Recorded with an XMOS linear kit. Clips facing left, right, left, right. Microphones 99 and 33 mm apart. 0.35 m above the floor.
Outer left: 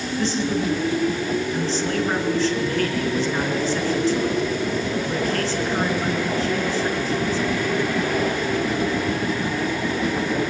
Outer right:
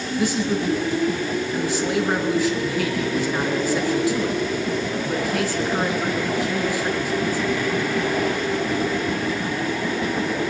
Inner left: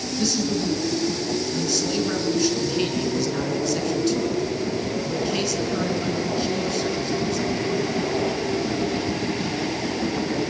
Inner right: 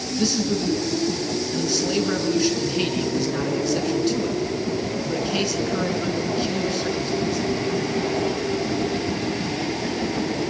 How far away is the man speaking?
About 3.5 m.